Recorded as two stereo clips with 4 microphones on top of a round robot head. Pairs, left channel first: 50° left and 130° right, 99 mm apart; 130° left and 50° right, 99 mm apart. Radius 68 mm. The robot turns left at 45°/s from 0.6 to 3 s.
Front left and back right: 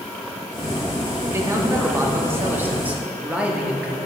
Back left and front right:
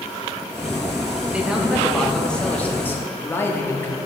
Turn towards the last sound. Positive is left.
turn(degrees=170)